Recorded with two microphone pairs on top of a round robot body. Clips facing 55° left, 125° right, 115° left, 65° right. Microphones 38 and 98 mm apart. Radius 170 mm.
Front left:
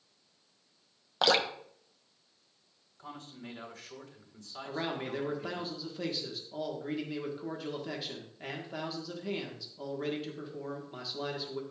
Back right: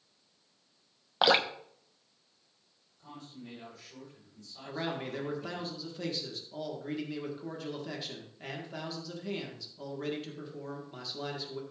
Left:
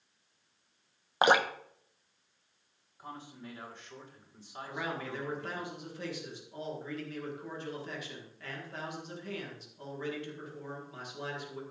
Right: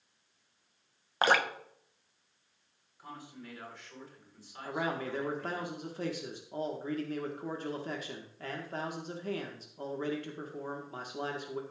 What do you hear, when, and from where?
1.2 s dripping: 175° left, 1.3 m
3.0 s a man speaking: 50° left, 5 m
4.7 s a man speaking: 25° right, 1.8 m